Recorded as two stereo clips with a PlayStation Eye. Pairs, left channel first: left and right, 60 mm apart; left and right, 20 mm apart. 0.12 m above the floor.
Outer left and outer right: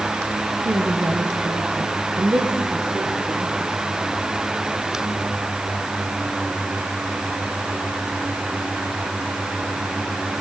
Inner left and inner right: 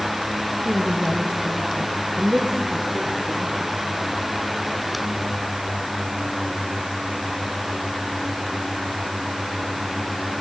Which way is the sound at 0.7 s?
65° right (ahead or behind).